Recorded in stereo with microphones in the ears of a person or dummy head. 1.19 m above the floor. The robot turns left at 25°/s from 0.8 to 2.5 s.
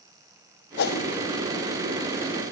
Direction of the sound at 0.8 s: 50° left (ahead or behind).